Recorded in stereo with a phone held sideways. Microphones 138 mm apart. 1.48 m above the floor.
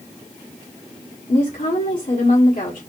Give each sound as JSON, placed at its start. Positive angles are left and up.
{"t": 1.3, "sound": "a woman speaking", "side_deg": 70, "distance_m": 1.8}